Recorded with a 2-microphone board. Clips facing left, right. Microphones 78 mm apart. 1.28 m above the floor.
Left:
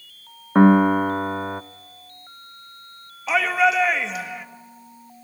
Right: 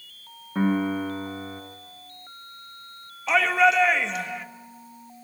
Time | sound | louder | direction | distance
0.6 | a piano | left 10 dB | 70° left (ahead or behind) | 0.7 m
3.3 | a shout | even | 5° left (ahead or behind) | 1.5 m